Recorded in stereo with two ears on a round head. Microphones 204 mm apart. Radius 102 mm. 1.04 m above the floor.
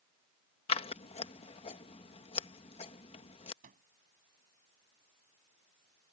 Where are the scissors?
25° left (ahead or behind).